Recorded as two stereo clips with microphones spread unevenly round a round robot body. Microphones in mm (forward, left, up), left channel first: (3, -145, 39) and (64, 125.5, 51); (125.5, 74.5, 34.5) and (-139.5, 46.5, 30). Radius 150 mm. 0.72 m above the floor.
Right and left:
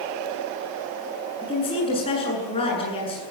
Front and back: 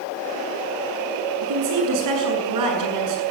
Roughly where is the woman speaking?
Behind.